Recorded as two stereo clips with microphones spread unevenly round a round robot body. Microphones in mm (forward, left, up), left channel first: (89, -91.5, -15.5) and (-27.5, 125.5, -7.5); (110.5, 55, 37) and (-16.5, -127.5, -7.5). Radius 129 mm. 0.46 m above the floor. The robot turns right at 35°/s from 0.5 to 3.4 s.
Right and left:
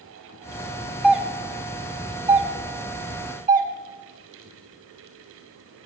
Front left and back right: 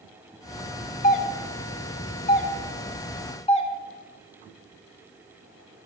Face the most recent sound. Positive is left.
turn(degrees=115)